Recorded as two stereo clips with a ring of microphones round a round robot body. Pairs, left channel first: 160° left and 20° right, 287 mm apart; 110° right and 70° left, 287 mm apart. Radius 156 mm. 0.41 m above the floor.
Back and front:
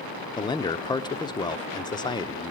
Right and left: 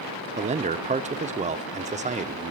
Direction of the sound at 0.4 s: 100° left.